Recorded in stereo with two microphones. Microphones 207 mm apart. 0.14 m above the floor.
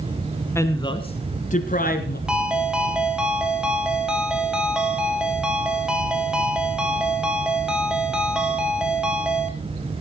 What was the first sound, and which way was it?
A woman speaking, 10° left (ahead or behind).